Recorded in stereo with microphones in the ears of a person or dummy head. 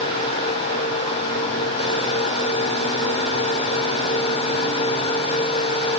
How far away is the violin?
I don't hear a violin.